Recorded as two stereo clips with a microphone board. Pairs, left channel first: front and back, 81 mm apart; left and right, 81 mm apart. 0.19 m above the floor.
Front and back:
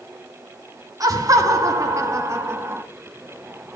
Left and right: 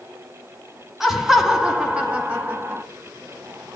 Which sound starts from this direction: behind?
Laughter, at 1.0 s.